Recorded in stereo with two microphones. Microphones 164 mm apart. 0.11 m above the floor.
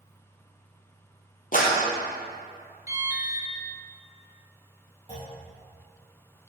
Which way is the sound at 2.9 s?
20° right (ahead or behind).